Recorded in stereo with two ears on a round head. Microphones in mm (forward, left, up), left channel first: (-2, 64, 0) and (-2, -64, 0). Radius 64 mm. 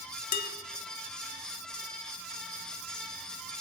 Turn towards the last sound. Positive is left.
turn(degrees=75)  # may be behind; listen again after turning